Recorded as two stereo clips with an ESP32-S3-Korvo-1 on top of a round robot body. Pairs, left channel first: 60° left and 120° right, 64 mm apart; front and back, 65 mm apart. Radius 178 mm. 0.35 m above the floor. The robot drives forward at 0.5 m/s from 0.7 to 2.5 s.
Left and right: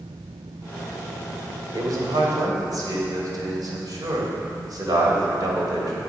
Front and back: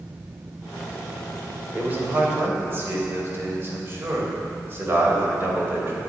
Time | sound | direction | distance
1.7 | a man speaking | 120° right | 2.5 m